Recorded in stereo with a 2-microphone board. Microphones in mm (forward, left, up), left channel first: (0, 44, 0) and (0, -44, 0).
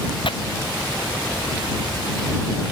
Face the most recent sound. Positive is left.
turn(degrees=75)  # may be behind; listen again after turning